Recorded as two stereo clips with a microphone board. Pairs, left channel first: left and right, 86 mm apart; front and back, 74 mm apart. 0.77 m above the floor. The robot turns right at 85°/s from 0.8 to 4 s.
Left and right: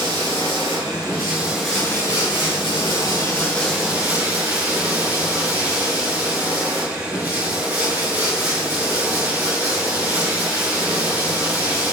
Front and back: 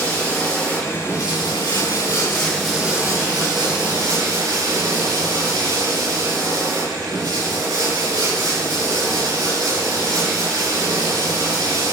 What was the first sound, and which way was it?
Running water, 70° right.